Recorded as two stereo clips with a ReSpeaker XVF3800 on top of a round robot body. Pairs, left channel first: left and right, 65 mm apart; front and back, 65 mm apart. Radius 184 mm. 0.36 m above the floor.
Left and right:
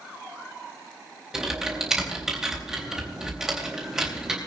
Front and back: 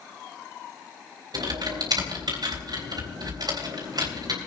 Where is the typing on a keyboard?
170° right, 3.5 m.